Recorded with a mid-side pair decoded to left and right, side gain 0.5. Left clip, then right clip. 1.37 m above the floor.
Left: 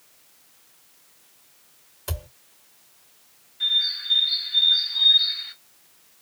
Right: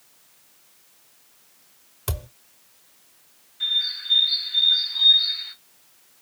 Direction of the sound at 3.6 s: Straight ahead.